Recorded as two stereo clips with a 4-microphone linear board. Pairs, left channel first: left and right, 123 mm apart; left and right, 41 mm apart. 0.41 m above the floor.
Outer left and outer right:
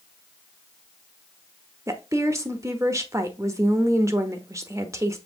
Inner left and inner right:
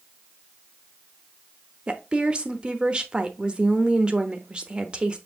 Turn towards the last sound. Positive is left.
turn(degrees=-25)  # may be behind; listen again after turning